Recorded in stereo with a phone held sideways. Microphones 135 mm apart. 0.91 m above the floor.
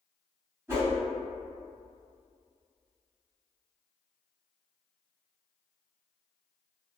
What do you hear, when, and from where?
0.7 s a whoosh: 20° right (ahead or behind), 1.3 m